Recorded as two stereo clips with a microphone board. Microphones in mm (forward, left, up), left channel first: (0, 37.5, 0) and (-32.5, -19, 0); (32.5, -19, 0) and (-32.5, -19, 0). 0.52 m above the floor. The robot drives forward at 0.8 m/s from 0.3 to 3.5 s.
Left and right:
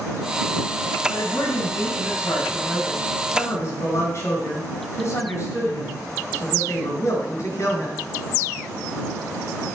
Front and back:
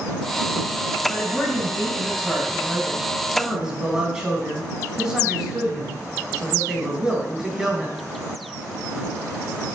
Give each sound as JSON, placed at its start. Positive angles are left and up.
{"t": 1.1, "sound": "a man speaking", "azimuth_deg": 65, "distance_m": 4.0}